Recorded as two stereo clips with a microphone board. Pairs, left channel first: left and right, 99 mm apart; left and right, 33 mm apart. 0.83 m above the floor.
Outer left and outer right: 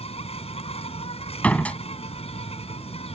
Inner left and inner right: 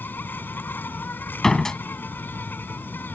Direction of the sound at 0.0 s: 85° left.